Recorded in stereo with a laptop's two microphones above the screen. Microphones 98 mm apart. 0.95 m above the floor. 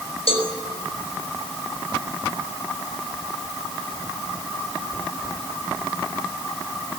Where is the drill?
I don't hear a drill.